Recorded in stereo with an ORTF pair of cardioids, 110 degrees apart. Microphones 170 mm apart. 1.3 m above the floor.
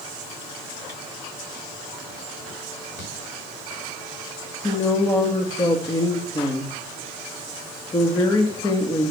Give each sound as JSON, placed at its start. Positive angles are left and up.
{"t": 2.9, "sound": "footsteps", "azimuth_deg": 60, "distance_m": 5.0}
{"t": 4.6, "sound": "a woman speaking", "azimuth_deg": 25, "distance_m": 2.5}